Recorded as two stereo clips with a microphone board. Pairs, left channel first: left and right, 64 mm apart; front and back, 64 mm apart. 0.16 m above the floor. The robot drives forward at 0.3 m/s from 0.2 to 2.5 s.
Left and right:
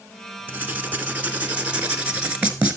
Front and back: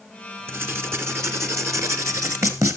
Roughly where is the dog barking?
No dog barking in this recording.